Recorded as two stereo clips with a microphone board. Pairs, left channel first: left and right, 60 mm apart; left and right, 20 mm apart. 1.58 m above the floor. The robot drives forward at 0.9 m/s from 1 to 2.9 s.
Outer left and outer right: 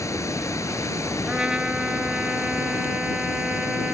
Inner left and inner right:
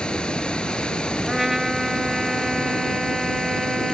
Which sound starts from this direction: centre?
A trumpet, at 1.3 s.